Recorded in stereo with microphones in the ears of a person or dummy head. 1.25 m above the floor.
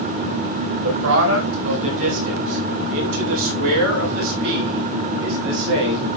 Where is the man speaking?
85° right, 4.5 m; by 6.1 s 70° right (ahead or behind), 8 m.